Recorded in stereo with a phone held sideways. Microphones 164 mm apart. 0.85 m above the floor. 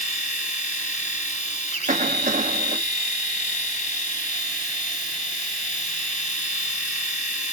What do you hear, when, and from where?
0.0 s a machine running: 50° left (ahead or behind), 2.5 m
1.9 s a cough: 50° right (ahead or behind), 1.5 m